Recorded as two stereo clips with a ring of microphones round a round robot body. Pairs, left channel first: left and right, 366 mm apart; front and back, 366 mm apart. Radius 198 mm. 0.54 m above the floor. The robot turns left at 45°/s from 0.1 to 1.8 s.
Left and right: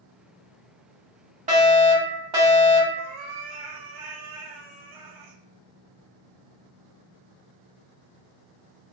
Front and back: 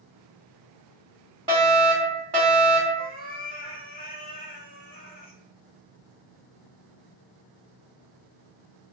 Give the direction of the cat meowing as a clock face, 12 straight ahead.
2 o'clock.